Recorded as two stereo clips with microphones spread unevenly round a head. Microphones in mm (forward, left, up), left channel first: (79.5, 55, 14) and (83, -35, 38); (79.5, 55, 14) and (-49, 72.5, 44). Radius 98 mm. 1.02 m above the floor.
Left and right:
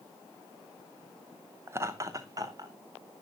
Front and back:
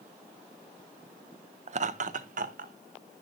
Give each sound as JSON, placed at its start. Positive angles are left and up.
{"t": 1.7, "sound": "laughter", "azimuth_deg": -160, "distance_m": 0.6}